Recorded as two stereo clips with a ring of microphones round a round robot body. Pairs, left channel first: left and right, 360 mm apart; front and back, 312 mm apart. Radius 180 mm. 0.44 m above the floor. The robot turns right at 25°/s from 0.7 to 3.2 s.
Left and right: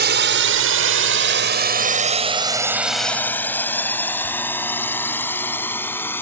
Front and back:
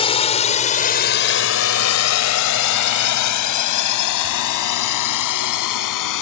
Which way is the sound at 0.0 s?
60° right.